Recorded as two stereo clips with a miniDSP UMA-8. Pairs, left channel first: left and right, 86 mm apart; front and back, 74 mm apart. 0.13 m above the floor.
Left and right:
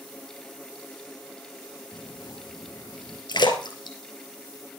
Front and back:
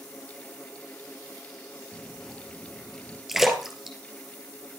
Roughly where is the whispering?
Left.